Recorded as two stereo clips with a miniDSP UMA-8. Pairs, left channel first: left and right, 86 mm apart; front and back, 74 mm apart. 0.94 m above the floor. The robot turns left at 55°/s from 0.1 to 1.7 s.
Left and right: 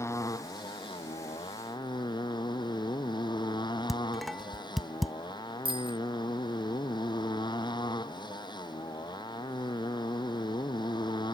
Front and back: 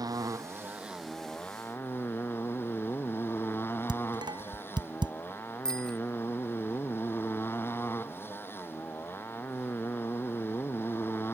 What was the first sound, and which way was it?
A motorcycle, 145° left.